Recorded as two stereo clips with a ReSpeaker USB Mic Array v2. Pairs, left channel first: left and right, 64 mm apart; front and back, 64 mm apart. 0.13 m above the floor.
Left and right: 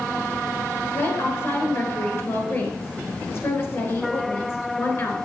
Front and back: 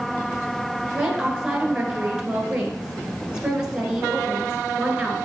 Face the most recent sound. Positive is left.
turn(degrees=110)